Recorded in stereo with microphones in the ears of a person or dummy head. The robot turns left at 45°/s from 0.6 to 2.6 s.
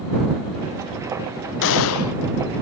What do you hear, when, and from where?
1.6 s a gunshot: 60° left (ahead or behind); by 2.2 s 85° left